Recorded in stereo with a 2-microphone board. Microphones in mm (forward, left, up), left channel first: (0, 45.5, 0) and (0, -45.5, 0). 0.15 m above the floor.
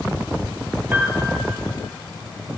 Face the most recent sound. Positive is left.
turn(degrees=-25)  # may be behind; listen again after turning